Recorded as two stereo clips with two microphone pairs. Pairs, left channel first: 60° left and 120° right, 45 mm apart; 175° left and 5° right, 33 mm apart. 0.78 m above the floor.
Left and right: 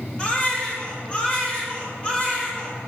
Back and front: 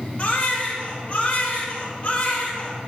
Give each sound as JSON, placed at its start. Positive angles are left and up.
{"t": 0.2, "sound": "a baby crying", "azimuth_deg": 125, "distance_m": 1.5}